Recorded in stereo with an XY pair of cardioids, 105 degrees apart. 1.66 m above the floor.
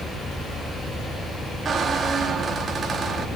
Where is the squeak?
45° right, 2.5 m.